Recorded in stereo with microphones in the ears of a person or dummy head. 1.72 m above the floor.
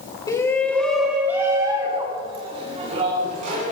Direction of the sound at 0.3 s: 20° left (ahead or behind).